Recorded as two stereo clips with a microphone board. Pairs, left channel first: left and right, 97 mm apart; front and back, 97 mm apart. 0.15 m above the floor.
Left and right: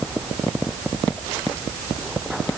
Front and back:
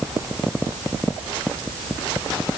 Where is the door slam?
I don't hear a door slam.